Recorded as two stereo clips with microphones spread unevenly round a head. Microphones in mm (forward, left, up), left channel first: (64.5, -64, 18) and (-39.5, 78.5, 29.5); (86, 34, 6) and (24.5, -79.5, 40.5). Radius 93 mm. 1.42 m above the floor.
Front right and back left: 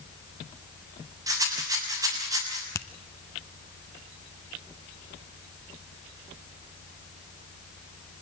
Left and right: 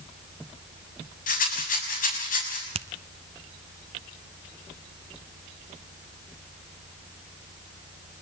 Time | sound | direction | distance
1.3 | a rattle | 55° left | 6.5 m
2.8 | a finger snap | 130° right | 0.7 m